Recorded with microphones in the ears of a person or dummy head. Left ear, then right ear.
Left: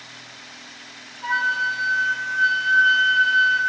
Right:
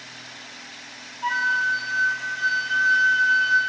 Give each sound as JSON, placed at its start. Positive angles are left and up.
{"t": 1.2, "sound": "a flute", "side_deg": -15, "distance_m": 1.6}